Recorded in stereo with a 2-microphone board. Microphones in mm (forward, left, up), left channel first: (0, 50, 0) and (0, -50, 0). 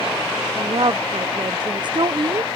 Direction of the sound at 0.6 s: 45° right (ahead or behind).